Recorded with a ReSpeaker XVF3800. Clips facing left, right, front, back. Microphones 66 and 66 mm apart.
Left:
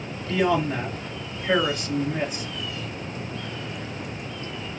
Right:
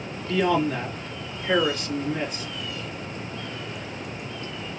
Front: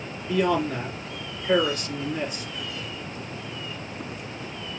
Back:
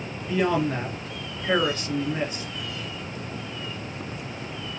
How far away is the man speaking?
About 2.0 m.